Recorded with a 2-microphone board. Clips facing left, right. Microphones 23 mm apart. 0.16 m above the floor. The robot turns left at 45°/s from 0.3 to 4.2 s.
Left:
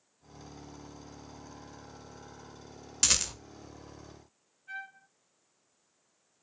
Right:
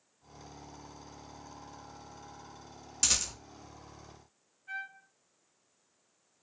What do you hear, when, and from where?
3.0 s a rattle: 20° left (ahead or behind), 0.5 m; by 3.3 s 30° left (ahead or behind), 0.5 m
4.7 s a trumpet: 5° right (ahead or behind), 2.0 m